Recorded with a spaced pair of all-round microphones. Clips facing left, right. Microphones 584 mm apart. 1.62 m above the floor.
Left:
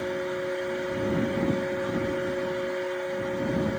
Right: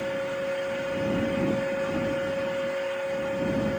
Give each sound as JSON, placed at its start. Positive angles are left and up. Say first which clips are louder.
{"t": 0.0, "sound": "a fan", "louder": "even", "side_deg": -55}